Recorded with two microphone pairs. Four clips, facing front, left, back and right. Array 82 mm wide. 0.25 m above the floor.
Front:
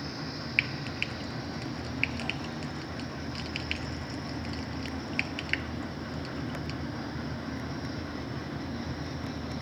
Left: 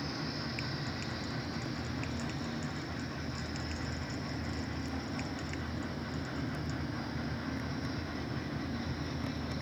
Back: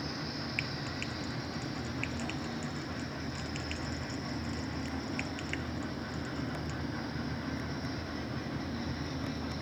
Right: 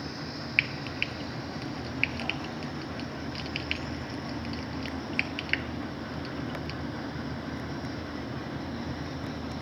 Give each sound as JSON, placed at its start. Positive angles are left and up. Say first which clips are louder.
{"t": 0.6, "sound": "frying", "louder": "right 8 dB, front 5 dB", "azimuth_deg": -60}